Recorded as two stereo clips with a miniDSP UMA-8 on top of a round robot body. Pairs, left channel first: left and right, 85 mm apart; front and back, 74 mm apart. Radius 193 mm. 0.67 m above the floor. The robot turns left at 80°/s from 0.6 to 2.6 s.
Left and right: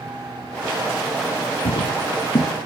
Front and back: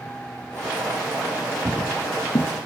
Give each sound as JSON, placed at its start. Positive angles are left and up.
{"t": 1.6, "sound": "footsteps", "azimuth_deg": 100, "distance_m": 2.0}